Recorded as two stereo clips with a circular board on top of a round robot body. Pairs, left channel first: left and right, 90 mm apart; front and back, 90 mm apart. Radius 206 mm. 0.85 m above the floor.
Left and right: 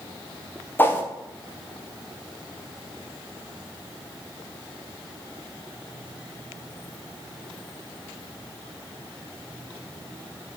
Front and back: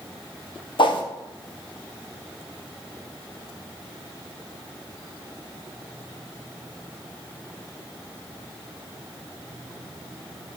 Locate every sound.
0.8 s a whoosh: 20° left, 2 m